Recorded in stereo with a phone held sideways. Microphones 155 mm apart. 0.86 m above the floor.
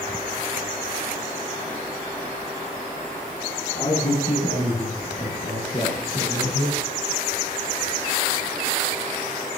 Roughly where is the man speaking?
Left.